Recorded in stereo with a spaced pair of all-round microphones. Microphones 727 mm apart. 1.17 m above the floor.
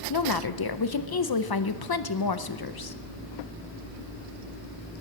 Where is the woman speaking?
35° left (ahead or behind), 0.5 m.